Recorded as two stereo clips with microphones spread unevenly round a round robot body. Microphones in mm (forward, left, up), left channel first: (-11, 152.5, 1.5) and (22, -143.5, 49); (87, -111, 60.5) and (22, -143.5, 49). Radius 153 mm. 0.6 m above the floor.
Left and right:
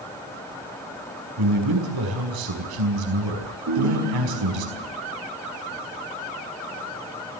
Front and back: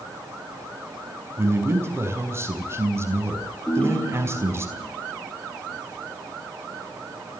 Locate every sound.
1.4 s a man speaking: 100° right, 5 m
3.7 s a ringtone: 45° right, 5.5 m